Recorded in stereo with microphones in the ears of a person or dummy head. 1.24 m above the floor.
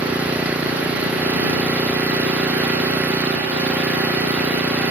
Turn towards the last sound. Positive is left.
turn(degrees=-10)  # may be behind; listen again after turning